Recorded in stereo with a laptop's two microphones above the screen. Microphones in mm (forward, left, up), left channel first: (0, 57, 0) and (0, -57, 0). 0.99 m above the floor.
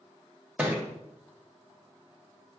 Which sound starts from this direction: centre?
A thud, at 0.6 s.